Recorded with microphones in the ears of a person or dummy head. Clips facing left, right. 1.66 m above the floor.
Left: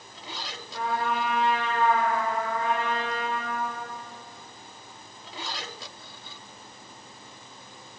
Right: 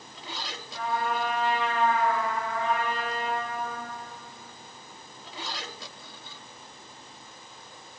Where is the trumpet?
45° left (ahead or behind), 4 m.